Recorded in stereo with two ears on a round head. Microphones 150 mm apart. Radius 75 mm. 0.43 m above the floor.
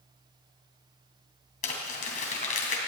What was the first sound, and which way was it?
Crumpling, 50° left (ahead or behind).